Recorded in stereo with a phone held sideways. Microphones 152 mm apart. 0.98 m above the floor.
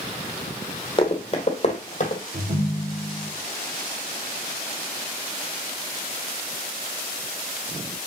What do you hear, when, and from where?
1.0 s running footsteps: 30° left (ahead or behind), 2.5 m; by 2.2 s 50° left (ahead or behind), 2 m
2.3 s a ringtone: 80° right, 1.6 m